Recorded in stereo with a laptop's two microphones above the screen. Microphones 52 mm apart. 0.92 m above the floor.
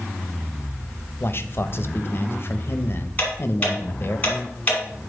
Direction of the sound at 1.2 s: 50° left (ahead or behind).